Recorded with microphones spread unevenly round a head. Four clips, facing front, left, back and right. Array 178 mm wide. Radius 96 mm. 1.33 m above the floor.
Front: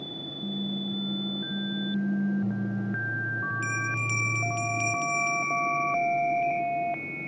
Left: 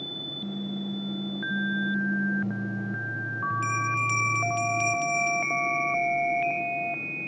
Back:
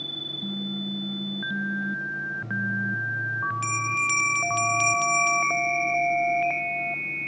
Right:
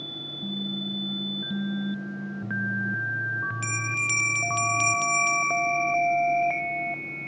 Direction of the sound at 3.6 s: 100° right.